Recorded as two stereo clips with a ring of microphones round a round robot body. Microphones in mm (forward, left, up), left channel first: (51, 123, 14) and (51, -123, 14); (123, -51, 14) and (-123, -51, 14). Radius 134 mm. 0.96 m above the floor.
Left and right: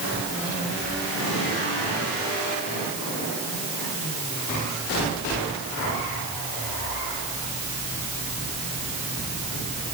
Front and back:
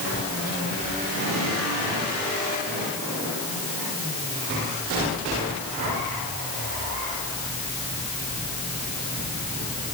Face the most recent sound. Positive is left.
No sound to turn to.